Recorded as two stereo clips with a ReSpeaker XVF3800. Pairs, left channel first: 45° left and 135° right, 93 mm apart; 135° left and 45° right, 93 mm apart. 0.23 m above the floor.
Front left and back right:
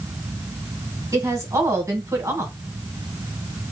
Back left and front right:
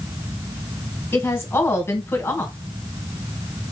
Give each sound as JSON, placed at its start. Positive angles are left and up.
{"t": 1.1, "sound": "a woman speaking", "azimuth_deg": -170, "distance_m": 2.0}